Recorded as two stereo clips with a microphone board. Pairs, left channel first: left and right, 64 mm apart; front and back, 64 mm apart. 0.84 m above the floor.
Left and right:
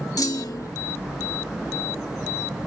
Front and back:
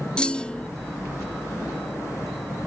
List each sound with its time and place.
0.2 s a clunk: 75° left